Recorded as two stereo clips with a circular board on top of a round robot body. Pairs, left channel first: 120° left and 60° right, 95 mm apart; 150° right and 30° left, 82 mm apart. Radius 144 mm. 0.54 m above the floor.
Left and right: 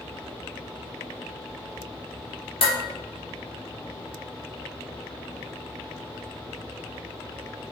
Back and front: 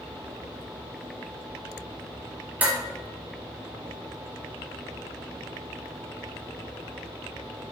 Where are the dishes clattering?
100° left, 1.9 m.